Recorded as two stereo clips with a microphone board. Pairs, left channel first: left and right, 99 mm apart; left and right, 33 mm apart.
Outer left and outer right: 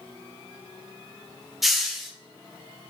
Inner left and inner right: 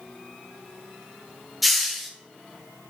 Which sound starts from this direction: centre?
A hiss, at 1.6 s.